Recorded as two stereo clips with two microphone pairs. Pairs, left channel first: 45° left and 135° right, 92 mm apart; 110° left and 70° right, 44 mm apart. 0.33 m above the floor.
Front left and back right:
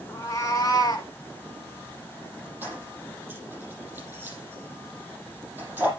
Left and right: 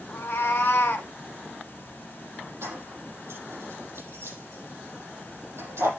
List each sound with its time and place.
0.1 s a cat meowing: 100° left, 1.4 m; by 1.1 s 80° left, 0.8 m
2.6 s keys jangling: 60° right, 6 m